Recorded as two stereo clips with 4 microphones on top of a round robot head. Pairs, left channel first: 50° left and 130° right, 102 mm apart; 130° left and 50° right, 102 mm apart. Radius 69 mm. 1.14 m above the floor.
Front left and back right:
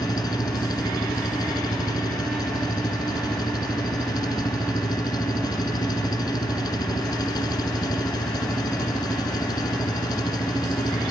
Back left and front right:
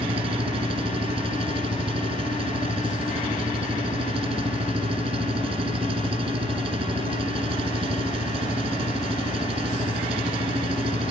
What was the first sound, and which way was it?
An engine running, 10° right.